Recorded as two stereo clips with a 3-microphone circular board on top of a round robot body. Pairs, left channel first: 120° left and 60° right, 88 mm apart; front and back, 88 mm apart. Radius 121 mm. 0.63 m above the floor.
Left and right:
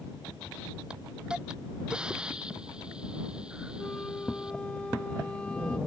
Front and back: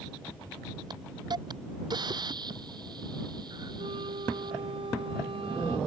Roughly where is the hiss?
Behind right.